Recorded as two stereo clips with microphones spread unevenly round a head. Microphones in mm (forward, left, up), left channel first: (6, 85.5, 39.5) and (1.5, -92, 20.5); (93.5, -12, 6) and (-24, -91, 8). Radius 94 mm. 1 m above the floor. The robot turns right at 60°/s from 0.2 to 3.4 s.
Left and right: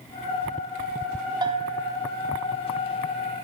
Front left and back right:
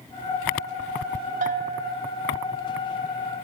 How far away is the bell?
About 1.2 m.